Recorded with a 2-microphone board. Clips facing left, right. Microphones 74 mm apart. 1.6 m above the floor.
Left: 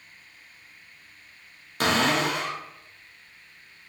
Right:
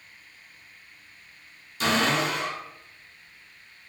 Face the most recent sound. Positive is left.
turn(degrees=60)  # may be behind; listen again after turning